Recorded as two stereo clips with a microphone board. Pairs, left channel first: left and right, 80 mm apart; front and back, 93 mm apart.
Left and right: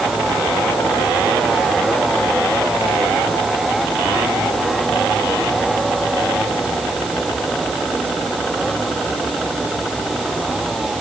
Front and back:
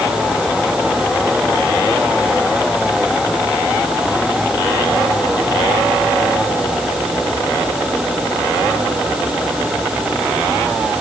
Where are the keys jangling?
No keys jangling in this recording.